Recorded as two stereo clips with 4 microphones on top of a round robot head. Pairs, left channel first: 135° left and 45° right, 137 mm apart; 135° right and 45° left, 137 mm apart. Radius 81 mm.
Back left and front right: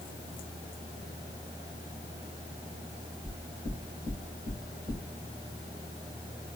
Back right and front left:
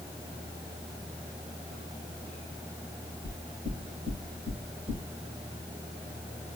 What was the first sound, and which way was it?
Knocking, 125° right.